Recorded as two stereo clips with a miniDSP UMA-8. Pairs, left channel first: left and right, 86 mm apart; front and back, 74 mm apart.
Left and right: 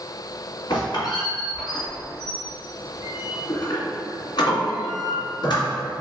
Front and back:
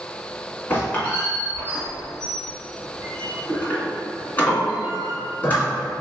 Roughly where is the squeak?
Ahead left.